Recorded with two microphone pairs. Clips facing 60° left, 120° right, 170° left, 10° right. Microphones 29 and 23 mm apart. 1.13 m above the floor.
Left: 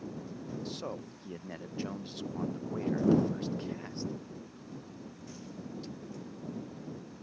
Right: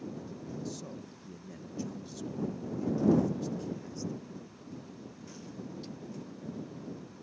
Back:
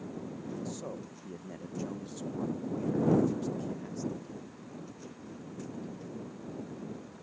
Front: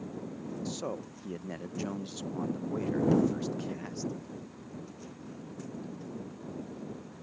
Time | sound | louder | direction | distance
0.7 | a man speaking | left 2 dB, front 3 dB | 30° left | ?